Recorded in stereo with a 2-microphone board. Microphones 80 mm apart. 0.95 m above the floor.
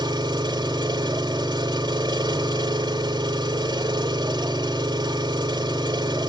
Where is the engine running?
65° right (ahead or behind), 1.6 m.